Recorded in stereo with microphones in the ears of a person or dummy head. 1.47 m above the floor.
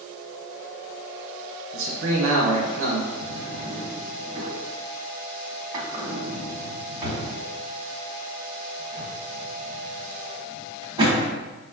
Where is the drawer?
25° right (ahead or behind), 1.2 m.